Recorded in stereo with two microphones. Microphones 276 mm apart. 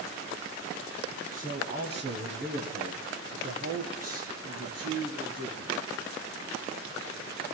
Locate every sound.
1.3 s a man speaking: 30° right (ahead or behind), 1.9 m; by 5.8 s 65° right (ahead or behind), 4 m